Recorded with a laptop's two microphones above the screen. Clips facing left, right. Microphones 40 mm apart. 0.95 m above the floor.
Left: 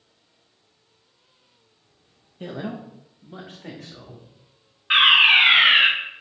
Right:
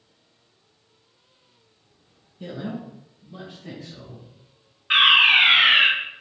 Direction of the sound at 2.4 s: 40° left (ahead or behind).